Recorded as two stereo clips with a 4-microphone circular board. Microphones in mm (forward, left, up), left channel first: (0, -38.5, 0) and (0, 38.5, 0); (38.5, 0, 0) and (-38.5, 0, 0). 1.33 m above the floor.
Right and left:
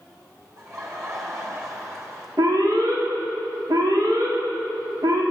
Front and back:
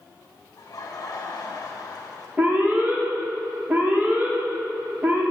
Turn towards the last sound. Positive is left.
turn(degrees=115)